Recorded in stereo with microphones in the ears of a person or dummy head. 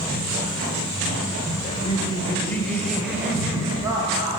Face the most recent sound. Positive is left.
turn(degrees=-25)  # may be behind; listen again after turning